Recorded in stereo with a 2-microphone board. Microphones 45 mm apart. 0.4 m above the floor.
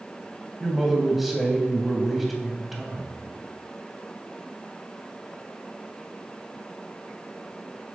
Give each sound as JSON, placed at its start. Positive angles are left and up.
{"t": 0.6, "sound": "a man speaking", "side_deg": 0, "distance_m": 2.5}